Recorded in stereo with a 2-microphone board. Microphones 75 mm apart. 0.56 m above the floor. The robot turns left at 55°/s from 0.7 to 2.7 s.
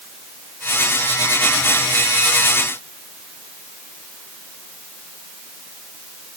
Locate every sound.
Only background noise.